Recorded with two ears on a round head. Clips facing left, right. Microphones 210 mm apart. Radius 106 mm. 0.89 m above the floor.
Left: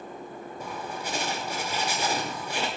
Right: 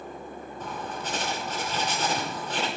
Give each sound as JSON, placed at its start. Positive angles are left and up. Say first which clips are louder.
{"t": 0.6, "sound": "writing", "louder": "right 1 dB", "side_deg": 10, "distance_m": 2.0}